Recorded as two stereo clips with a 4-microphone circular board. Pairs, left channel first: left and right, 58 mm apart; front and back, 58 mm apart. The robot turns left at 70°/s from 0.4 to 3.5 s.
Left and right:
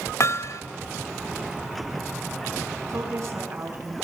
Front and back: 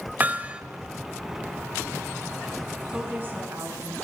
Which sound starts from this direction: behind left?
Hammering, at 0.2 s.